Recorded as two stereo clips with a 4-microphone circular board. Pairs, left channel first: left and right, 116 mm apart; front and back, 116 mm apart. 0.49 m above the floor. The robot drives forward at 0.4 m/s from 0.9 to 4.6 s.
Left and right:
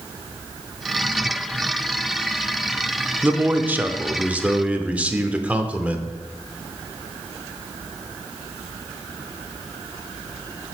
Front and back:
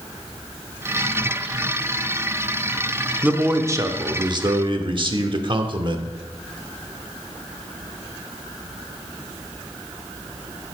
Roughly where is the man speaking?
Behind right.